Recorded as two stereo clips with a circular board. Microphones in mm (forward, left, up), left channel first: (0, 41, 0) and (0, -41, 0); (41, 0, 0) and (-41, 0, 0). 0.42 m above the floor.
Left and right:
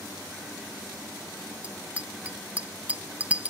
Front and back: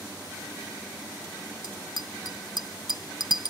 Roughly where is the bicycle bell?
Ahead.